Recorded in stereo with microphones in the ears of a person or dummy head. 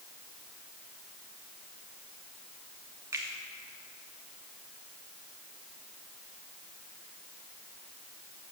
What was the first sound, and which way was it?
A finger snap, 20° right (ahead or behind).